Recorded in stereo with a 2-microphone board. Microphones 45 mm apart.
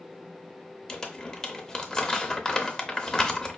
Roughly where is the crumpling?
Centre.